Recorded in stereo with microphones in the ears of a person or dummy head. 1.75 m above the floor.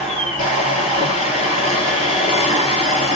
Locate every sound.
0.0 s a machine running: 35° left (ahead or behind), 4 m